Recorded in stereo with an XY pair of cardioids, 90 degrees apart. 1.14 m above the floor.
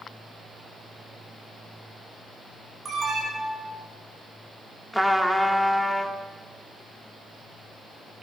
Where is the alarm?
50° right, 7.5 m.